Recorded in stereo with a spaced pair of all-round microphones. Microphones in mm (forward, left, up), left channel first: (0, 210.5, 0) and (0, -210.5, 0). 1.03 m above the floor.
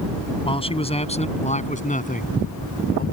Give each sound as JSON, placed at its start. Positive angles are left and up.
{"t": 0.5, "sound": "a man speaking", "side_deg": 10}